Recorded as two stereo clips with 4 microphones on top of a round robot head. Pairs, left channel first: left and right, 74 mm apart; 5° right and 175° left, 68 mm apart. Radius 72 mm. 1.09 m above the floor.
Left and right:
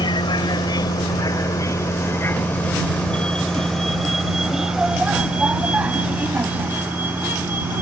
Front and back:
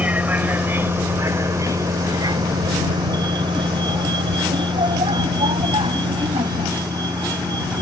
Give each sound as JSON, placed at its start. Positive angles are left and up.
{"t": 0.0, "sound": "a vehicle", "azimuth_deg": 105}